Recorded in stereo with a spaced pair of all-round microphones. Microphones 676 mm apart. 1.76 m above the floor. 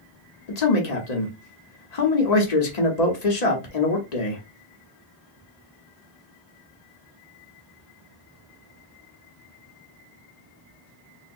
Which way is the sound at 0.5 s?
70° left (ahead or behind).